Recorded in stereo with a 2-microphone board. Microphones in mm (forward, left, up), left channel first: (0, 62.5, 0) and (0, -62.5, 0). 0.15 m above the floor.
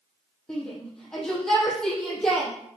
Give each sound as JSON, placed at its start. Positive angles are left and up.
{"t": 0.5, "sound": "a shout", "side_deg": 5, "distance_m": 6.0}